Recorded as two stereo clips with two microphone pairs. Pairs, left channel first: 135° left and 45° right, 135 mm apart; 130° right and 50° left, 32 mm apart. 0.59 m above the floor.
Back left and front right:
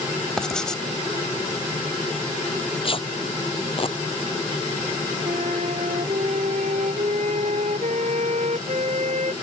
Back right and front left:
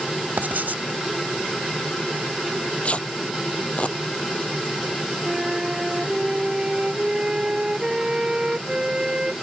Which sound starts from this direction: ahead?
A flute, at 5.2 s.